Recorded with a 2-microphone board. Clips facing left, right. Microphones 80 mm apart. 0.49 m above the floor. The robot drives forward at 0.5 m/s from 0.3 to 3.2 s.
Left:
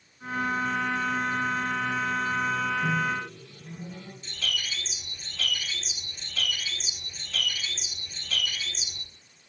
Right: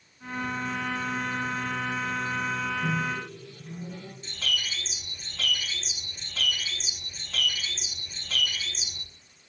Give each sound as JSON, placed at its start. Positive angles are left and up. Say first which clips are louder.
{"t": 2.8, "sound": "a microwave", "louder": "left 2 dB", "side_deg": -5, "distance_m": 2.0}
{"t": 4.2, "sound": "a bird", "louder": "right 1 dB", "side_deg": -30, "distance_m": 3.5}